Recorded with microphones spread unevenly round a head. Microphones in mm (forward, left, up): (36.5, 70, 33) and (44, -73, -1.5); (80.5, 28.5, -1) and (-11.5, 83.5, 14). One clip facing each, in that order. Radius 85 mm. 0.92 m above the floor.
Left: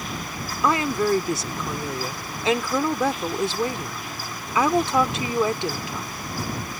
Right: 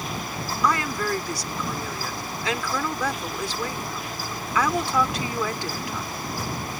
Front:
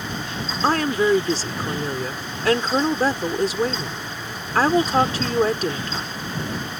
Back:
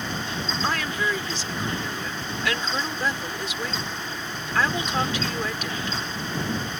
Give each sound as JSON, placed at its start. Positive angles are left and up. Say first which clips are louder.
{"t": 0.6, "sound": "a woman speaking", "louder": "left 4 dB, front 9 dB", "azimuth_deg": 20}